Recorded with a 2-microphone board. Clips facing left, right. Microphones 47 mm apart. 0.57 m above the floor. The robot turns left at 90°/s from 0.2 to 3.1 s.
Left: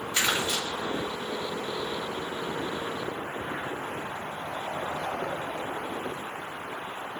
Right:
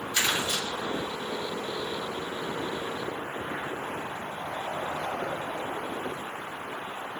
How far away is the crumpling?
About 1.8 m.